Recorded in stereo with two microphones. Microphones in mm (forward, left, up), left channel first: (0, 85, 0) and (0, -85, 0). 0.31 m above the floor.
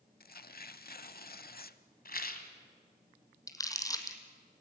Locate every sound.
0.2 s tearing paper: 65° left (ahead or behind), 0.7 m
2.0 s a rattle: 60° left (ahead or behind), 1.7 m
3.5 s crumpling: 20° left (ahead or behind), 1.8 m